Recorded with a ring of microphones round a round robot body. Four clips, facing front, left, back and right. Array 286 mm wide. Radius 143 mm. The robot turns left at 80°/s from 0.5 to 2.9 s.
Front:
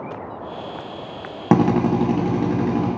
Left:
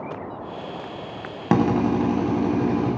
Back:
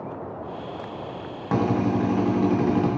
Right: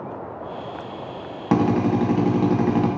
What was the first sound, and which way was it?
A drill, 15° left.